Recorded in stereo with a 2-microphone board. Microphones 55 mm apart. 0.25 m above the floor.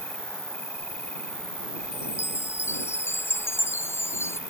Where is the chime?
50° left (ahead or behind).